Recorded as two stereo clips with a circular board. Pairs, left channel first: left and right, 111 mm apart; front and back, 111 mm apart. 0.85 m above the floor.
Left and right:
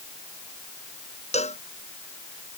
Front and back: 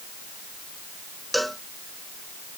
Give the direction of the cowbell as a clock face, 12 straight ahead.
9 o'clock.